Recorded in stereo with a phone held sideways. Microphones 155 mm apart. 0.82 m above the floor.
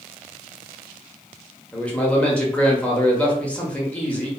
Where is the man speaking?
10° left (ahead or behind), 0.9 m.